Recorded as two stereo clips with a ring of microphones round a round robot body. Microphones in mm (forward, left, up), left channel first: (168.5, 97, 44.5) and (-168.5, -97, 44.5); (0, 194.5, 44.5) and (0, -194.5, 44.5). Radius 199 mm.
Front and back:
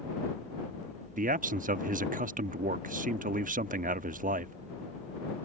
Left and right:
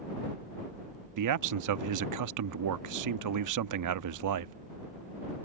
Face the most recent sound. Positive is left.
turn(degrees=-90)